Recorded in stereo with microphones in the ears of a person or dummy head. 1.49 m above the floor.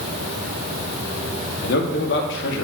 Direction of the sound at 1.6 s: 80° left.